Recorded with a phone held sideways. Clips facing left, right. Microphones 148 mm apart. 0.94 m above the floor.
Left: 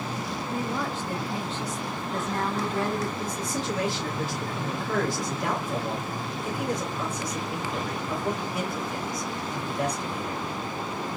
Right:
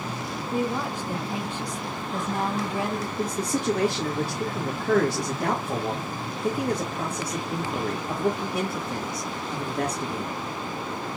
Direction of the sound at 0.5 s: 15° right (ahead or behind).